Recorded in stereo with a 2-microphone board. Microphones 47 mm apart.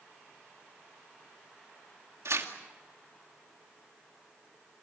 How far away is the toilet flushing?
I don't hear a toilet flushing.